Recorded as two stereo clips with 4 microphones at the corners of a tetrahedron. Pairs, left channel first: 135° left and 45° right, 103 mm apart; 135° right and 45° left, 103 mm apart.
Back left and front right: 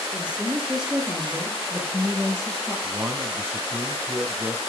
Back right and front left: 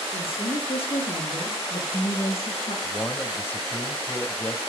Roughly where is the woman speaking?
Behind right.